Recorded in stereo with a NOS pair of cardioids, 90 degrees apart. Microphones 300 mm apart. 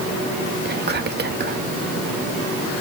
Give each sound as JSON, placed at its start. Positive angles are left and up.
{"t": 0.7, "sound": "whispering", "azimuth_deg": -35, "distance_m": 1.3}